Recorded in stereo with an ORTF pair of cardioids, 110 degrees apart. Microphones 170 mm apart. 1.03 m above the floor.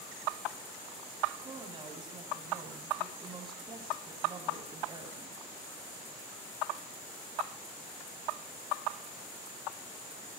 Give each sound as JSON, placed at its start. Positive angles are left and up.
{"t": 1.4, "sound": "a woman speaking", "azimuth_deg": -30, "distance_m": 9.0}